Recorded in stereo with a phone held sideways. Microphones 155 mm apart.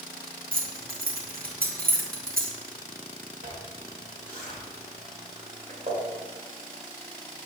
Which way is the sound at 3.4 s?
55° right (ahead or behind).